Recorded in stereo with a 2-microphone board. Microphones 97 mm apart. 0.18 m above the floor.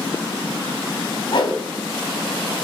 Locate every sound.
1.3 s a whoosh: 55° left (ahead or behind), 1.2 m